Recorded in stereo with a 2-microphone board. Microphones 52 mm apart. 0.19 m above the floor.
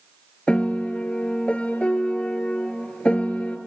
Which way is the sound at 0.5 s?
25° left (ahead or behind).